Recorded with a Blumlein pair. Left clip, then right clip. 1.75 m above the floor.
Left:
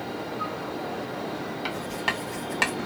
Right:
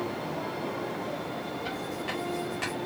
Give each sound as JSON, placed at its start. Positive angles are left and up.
{"t": 1.6, "sound": "writing", "azimuth_deg": 40, "distance_m": 1.3}